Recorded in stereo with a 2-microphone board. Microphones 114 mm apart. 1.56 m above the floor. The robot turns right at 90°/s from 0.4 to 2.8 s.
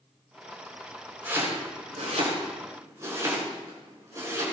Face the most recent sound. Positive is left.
turn(degrees=-30)  # may be behind; listen again after turning